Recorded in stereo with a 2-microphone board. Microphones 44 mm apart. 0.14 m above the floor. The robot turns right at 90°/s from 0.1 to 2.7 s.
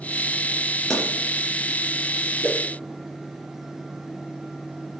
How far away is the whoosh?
About 0.9 m.